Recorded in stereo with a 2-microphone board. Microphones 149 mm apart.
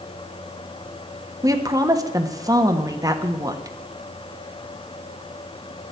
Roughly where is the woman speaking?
Right.